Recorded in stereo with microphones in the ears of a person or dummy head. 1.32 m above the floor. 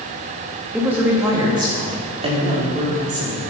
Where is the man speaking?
Centre (ahead or behind), 1.8 m; by 3.5 s 40° right (ahead or behind), 3.5 m.